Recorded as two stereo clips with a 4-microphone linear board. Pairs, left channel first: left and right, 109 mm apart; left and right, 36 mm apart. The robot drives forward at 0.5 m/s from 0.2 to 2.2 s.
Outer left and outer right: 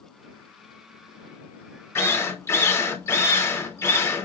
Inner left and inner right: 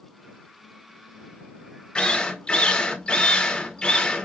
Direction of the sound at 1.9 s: 25° left (ahead or behind).